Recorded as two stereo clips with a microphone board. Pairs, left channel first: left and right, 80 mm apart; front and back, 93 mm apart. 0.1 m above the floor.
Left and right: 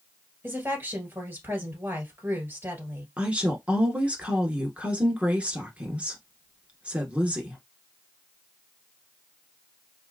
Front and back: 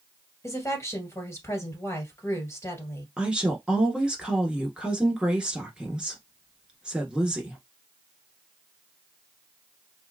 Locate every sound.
0.4 s a woman speaking: 40° right, 2.0 m
3.2 s a woman speaking: 120° right, 1.3 m